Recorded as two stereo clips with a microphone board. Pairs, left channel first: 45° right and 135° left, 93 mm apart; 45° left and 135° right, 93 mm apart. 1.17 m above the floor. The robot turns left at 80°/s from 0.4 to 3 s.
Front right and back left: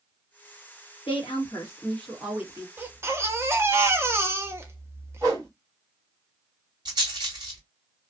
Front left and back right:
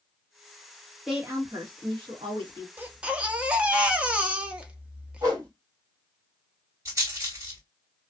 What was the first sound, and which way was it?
A woman speaking, 45° right.